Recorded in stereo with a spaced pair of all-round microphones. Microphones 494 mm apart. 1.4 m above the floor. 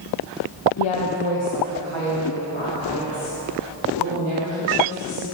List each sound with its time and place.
0.8 s a woman speaking: 70° left (ahead or behind), 0.8 m; by 5.2 s 85° left, 5 m